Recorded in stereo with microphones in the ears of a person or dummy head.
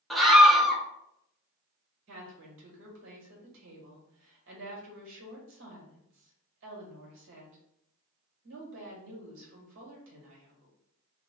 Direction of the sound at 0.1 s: 5° right (ahead or behind).